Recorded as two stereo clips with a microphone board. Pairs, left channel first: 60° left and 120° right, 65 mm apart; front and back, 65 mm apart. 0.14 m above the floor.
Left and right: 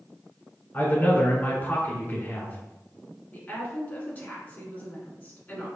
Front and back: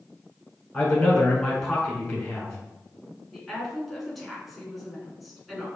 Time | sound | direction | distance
0.7 | a man speaking | 60° left | 1.2 m
3.3 | a woman speaking | 85° left | 1.5 m